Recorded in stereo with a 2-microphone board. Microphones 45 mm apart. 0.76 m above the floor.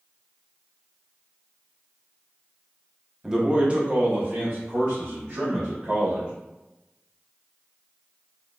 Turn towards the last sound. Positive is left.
turn(degrees=-40)  # may be behind; listen again after turning